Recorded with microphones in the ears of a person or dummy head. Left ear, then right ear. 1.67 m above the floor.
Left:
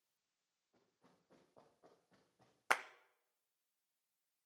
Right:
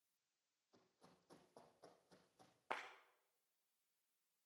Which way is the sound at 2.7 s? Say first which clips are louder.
Left 12 dB; 60° left (ahead or behind).